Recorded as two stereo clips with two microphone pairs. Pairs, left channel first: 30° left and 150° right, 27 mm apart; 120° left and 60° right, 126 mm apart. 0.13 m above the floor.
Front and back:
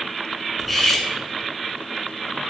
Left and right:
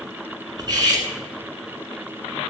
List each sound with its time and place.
0.6 s cutlery clinking: 45° right, 0.7 m